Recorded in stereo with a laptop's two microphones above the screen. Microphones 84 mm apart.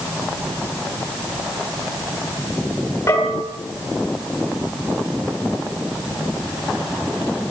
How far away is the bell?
About 7 m.